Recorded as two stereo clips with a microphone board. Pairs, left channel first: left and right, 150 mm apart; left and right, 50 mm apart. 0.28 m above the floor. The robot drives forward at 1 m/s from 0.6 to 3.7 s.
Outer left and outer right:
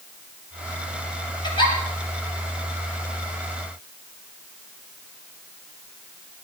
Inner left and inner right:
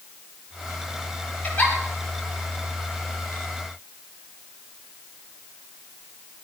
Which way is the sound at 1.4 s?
30° left (ahead or behind).